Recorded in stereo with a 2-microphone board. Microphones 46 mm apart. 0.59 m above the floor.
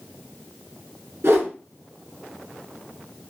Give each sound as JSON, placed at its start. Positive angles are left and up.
{"t": 1.2, "sound": "a whoosh", "side_deg": -65, "distance_m": 1.8}